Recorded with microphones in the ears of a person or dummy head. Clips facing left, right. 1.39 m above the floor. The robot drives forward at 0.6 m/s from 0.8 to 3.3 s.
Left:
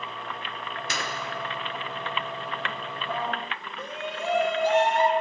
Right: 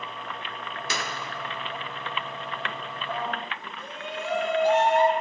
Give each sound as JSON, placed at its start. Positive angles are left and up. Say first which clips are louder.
{"t": 0.9, "sound": "a clap", "louder": "right 1 dB", "side_deg": -80, "distance_m": 1.4}
{"t": 3.8, "sound": "a shout", "louder": "left 2 dB", "side_deg": 60, "distance_m": 1.2}